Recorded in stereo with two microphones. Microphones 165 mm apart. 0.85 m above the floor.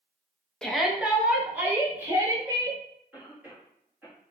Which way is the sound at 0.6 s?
5° left (ahead or behind).